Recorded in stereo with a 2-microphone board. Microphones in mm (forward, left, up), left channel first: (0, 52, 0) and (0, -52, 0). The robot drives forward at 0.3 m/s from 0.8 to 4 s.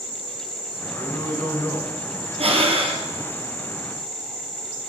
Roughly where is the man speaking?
Left.